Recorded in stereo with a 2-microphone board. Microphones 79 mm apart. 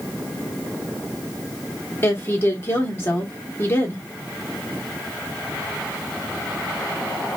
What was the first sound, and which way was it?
A woman speaking, 30° left (ahead or behind).